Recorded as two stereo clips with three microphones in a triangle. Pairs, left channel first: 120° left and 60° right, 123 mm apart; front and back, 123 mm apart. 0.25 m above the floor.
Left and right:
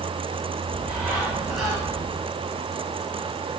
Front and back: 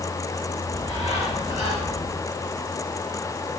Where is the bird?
30° left, 5 m.